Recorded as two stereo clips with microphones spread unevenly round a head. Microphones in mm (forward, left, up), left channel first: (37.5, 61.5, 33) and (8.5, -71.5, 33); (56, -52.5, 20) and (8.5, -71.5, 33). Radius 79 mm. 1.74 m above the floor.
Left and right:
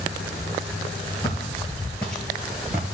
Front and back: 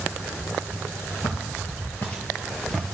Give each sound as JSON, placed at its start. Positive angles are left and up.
{"t": 1.2, "sound": "footsteps", "azimuth_deg": 35, "distance_m": 2.0}